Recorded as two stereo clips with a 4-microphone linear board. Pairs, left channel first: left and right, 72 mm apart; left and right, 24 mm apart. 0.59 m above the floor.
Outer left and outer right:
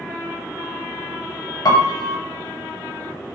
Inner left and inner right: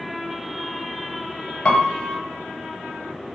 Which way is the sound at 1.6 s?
55° left (ahead or behind).